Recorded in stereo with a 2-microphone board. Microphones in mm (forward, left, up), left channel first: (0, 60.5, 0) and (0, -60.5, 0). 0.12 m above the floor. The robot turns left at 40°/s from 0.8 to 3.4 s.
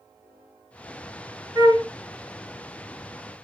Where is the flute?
25° right (ahead or behind), 1.2 m; by 1.9 s 20° right (ahead or behind), 1.2 m.